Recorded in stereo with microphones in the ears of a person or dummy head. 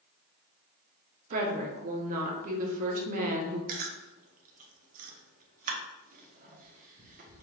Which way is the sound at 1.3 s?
35° right (ahead or behind).